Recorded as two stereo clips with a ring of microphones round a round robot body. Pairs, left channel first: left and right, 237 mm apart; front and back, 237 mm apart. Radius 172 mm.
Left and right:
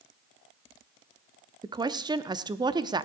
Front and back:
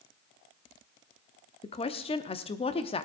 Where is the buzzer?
No buzzer in this recording.